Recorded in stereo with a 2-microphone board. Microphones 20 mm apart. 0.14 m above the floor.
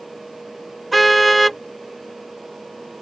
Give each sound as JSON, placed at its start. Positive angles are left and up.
{"t": 0.9, "sound": "a car horn", "side_deg": 5}